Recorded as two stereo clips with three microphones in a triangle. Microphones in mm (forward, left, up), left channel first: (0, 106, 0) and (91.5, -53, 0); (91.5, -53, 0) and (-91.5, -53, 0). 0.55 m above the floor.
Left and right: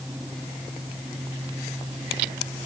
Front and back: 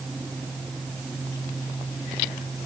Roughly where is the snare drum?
No snare drum in this recording.